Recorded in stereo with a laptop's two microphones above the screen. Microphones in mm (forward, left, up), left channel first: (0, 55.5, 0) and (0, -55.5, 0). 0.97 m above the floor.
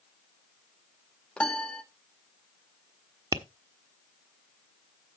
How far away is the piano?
About 0.8 m.